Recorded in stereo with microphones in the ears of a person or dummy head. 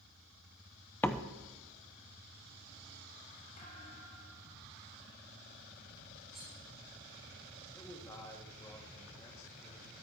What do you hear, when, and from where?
1.0 s a door slam: 10° left (ahead or behind), 0.9 m
3.6 s a thud: 50° left (ahead or behind), 4.5 m
6.3 s cutlery clinking: centre (ahead or behind), 8 m
7.7 s a man speaking: 15° left (ahead or behind), 2 m